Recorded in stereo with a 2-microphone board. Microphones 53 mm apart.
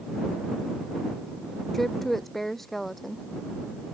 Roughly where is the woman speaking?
Centre.